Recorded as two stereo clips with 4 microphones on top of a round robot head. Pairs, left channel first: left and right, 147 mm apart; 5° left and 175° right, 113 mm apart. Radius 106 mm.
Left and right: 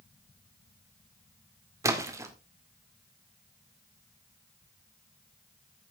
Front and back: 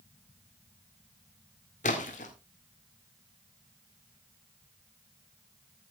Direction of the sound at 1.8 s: 25° right.